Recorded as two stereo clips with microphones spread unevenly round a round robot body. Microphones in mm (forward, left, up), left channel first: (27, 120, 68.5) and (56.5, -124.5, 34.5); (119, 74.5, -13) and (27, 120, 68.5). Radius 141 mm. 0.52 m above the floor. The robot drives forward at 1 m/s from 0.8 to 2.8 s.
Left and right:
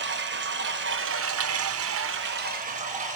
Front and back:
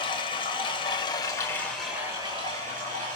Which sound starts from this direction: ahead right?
Running water, at 0.0 s.